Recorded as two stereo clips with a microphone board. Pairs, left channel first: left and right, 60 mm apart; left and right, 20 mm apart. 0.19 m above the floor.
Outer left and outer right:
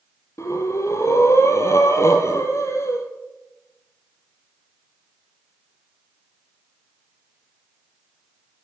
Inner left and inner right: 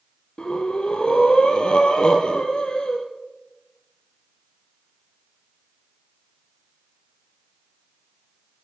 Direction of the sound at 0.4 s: 50° left (ahead or behind).